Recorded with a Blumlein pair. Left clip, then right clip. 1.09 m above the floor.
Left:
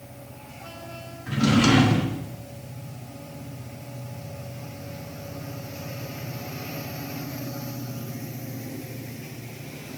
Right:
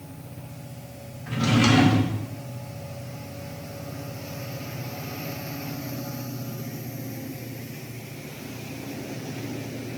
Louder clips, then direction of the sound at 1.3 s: Left 1 dB; 5° left.